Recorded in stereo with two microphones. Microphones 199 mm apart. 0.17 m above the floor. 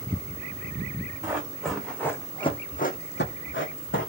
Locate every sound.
1.2 s running footsteps: 10° right (ahead or behind), 1.0 m; by 4.1 s 85° left, 0.9 m